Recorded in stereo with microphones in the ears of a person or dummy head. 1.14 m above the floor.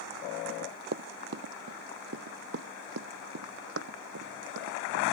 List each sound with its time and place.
0.5 s running footsteps: 45° right (ahead or behind); by 5.0 s 75° right (ahead or behind)